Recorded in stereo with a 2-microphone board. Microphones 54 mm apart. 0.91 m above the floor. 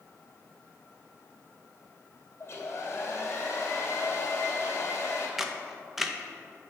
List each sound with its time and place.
2.4 s a hair dryer: 50° left (ahead or behind), 1.8 m
5.4 s a camera shutter: 5° right (ahead or behind), 0.5 m